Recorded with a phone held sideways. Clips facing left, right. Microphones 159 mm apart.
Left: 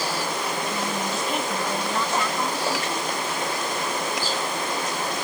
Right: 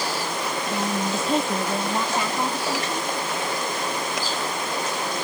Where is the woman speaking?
25° right (ahead or behind); by 3.1 s 15° right (ahead or behind).